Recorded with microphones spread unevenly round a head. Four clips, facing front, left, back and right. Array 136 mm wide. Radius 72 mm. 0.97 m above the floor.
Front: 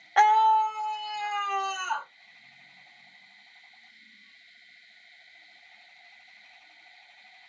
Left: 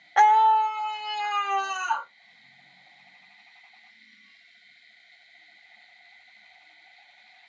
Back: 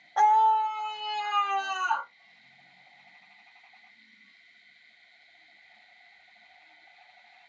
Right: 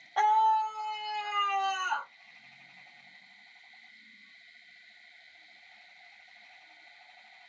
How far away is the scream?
About 0.6 m.